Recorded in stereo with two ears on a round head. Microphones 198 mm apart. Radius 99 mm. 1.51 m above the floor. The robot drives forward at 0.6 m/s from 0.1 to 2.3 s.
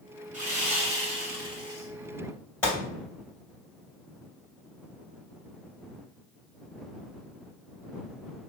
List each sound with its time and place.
0.3 s sawing: 35° right (ahead or behind), 1.4 m; by 1.9 s 20° right (ahead or behind), 2.5 m
2.6 s a gunshot: 5° left (ahead or behind), 2 m